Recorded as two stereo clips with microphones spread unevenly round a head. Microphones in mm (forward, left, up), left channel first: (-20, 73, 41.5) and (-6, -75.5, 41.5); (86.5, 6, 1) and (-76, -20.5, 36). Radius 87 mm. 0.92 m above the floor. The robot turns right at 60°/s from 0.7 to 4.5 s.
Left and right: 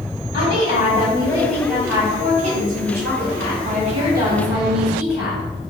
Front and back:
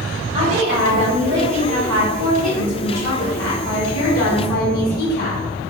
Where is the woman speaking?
130° left, 1.6 m; by 5.4 s 5° right, 1.6 m.